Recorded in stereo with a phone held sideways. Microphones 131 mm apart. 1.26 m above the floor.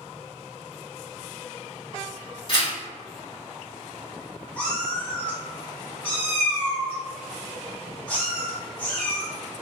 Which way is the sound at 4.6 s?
10° left (ahead or behind).